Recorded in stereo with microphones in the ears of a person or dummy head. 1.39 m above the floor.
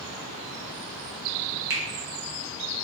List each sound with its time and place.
1.7 s a finger snap: 25° right (ahead or behind), 0.6 m